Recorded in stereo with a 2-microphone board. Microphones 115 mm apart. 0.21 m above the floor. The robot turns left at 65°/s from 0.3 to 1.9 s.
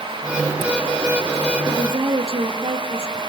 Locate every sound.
1.6 s a woman speaking: 40° right (ahead or behind), 4 m; by 3.2 s 55° right (ahead or behind), 4 m